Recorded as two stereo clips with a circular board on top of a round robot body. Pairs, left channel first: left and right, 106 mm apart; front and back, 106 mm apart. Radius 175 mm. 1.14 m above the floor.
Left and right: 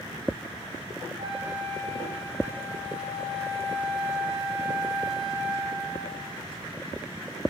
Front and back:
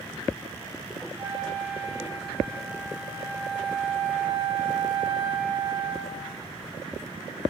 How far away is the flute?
About 1.2 m.